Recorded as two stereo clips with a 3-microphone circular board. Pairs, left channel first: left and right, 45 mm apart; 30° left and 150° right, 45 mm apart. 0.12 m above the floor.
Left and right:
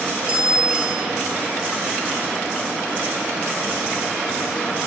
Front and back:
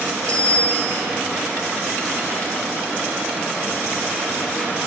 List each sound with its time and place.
0.3 s a bicycle bell: 95° left, 4.5 m